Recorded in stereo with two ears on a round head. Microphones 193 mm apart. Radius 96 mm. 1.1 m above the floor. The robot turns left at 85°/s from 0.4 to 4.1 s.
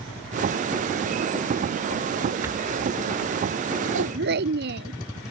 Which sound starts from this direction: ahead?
A rattle, at 2.4 s.